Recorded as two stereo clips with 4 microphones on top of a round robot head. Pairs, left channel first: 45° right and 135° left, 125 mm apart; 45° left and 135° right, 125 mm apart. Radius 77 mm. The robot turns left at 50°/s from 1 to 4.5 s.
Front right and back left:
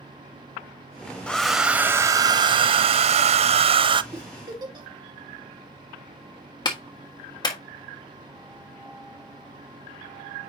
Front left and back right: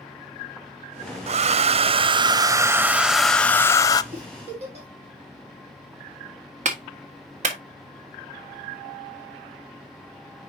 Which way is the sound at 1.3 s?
125° right.